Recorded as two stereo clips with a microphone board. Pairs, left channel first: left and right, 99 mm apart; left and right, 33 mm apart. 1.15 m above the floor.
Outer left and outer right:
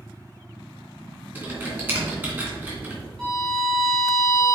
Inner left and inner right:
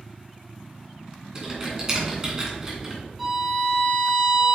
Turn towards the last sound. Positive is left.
turn(degrees=10)  # may be behind; listen again after turning